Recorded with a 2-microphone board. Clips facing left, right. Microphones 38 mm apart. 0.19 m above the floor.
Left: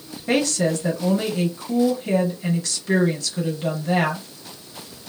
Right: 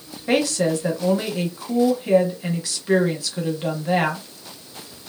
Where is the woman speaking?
15° right (ahead or behind), 1.0 m.